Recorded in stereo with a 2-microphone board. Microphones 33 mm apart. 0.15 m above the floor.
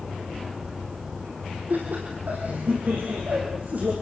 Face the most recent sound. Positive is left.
turn(degrees=-55)  # may be behind; listen again after turning